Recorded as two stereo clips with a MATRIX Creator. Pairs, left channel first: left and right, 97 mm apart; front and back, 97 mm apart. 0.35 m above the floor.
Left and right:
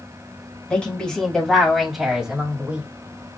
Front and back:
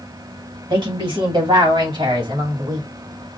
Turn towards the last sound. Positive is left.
turn(degrees=-160)